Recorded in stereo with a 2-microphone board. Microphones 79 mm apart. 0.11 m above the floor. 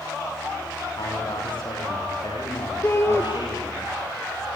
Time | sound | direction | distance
1.0 | a man speaking | 80° left | 9 m
2.8 | a shout | 35° left (ahead or behind) | 2.5 m